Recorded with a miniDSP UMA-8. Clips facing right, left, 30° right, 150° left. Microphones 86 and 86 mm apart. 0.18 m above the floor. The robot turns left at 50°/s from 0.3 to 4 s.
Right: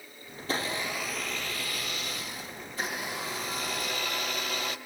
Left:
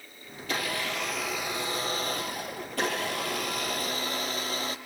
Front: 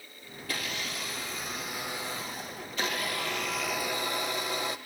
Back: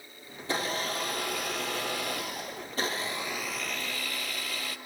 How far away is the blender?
About 2.5 m.